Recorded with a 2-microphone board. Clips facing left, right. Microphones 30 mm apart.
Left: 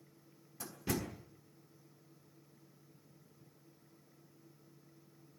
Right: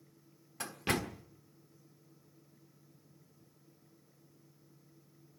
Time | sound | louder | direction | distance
0.6 | a door slam | right 5 dB | 60° right (ahead or behind) | 1.4 m